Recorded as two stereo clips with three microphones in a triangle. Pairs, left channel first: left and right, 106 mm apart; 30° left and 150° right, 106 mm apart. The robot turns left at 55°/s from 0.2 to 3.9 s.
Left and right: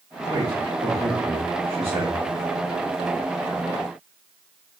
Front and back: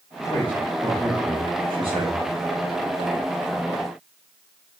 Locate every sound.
0.3 s a man speaking: 30° right, 1.7 m; by 2.2 s 135° right, 1.7 m